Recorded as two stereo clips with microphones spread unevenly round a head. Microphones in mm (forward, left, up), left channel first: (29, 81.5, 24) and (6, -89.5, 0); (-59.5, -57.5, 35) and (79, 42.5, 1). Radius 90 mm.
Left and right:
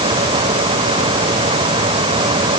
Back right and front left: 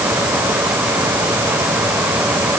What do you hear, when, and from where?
Only background noise.